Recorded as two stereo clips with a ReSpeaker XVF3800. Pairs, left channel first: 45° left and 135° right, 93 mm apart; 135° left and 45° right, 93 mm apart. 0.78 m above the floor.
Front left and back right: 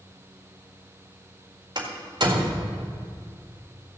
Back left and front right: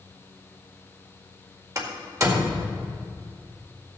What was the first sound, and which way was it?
A door slam, 100° right.